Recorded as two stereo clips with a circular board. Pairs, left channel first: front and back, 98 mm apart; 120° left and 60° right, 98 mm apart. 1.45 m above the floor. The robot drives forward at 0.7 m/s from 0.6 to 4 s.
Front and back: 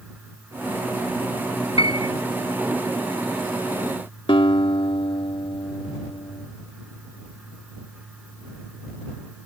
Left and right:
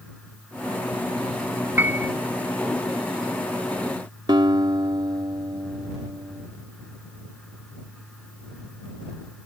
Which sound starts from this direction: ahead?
A piano, at 1.8 s.